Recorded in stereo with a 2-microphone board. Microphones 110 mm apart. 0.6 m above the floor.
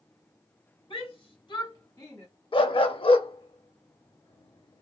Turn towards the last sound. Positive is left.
turn(degrees=55)  # may be behind; listen again after turning